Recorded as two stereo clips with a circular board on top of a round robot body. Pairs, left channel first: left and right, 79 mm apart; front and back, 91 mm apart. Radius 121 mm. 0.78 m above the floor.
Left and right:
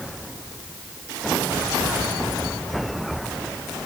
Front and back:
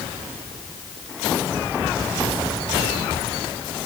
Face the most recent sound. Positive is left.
No sound to turn to.